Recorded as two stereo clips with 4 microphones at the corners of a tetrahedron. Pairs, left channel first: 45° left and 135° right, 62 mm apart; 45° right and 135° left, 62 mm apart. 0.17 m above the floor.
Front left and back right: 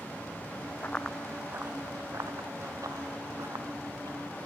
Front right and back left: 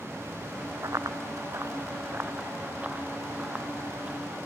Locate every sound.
0.8 s running footsteps: 105° left, 0.9 m; by 4.5 s 150° right, 5 m